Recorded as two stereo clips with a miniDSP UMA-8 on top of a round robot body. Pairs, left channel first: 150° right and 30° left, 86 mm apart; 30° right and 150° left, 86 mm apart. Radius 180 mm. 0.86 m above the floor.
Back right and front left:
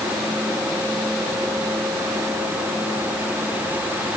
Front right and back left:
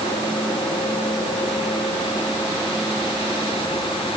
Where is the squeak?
No squeak in this recording.